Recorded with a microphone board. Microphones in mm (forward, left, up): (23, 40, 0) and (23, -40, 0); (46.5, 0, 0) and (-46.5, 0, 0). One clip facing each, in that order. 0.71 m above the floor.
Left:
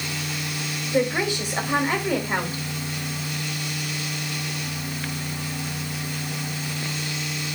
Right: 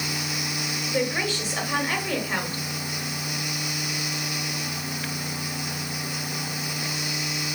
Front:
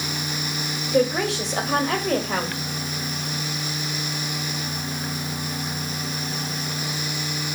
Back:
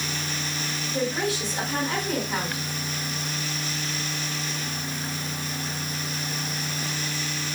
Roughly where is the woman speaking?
Ahead.